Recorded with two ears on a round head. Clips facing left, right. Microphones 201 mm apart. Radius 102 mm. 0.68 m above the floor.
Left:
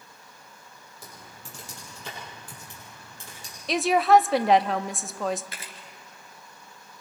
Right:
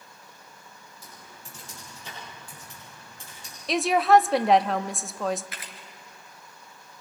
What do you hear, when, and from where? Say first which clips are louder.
1.0 s typing on a keyboard: left 3 dB; 60° left (ahead or behind), 9.5 m
3.7 s a woman speaking: even; centre (ahead or behind), 0.6 m
5.5 s a camera shutter: even; 25° left (ahead or behind), 2.5 m